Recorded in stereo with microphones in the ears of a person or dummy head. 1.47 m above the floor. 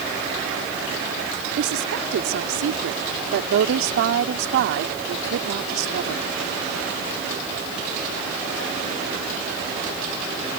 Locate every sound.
1.6 s a woman speaking: 65° right (ahead or behind)